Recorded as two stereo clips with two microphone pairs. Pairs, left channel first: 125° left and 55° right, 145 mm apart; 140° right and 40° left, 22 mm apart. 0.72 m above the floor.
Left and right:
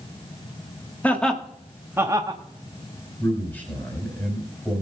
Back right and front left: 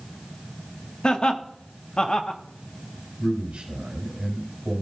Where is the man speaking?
45° left, 4 m.